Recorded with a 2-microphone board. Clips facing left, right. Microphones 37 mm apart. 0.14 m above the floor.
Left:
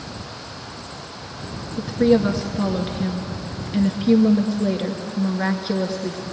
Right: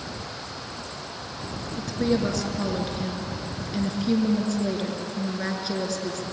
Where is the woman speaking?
20° left (ahead or behind), 1.9 m.